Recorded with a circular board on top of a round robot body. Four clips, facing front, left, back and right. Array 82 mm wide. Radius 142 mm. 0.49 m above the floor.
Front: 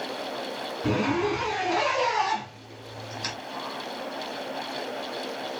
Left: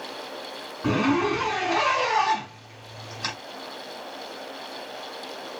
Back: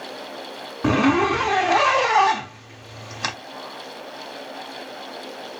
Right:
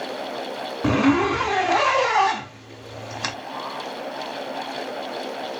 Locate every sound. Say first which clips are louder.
0.8 s a zipper: right 4 dB, back 7 dB; 150° right, 0.6 m